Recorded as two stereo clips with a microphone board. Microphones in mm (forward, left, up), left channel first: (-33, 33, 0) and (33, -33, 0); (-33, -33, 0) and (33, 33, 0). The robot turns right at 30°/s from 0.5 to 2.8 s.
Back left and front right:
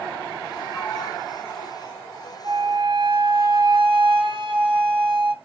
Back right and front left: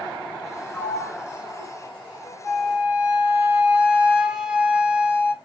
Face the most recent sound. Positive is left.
turn(degrees=-35)